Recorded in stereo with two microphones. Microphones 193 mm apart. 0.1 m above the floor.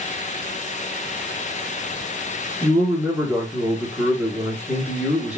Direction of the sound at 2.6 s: 5° right (ahead or behind).